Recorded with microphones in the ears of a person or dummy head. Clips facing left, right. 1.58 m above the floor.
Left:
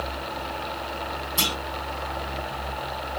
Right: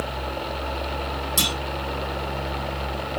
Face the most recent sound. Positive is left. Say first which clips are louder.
# even
turn(degrees=-50)  # may be behind; listen again after turning